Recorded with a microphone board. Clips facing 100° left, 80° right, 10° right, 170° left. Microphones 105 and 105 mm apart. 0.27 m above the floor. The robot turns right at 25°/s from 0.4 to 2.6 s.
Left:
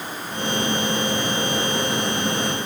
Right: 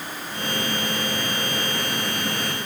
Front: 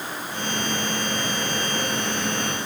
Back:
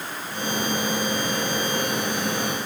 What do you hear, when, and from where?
Only background noise.